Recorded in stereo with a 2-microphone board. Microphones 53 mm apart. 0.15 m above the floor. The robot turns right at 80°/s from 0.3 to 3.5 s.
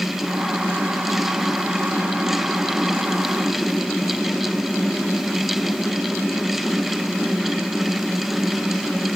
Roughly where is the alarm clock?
No alarm clock in this recording.